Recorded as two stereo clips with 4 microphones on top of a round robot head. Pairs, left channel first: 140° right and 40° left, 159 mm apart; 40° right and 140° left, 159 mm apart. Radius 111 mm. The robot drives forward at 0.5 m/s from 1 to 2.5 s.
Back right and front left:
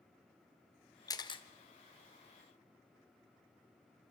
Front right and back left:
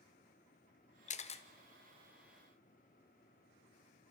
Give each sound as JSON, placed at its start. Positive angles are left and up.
{"t": 1.1, "sound": "a camera shutter", "azimuth_deg": -75, "distance_m": 1.0}